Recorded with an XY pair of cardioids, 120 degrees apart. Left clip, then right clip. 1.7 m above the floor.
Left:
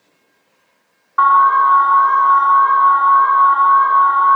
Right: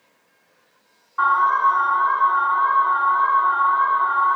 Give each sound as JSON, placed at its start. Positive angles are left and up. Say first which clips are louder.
{"t": 1.2, "sound": "an alarm", "louder": "left 7 dB", "azimuth_deg": 55, "distance_m": 0.9}